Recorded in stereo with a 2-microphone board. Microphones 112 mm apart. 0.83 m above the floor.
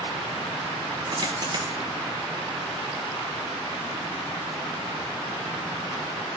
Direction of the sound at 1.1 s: 40° right (ahead or behind).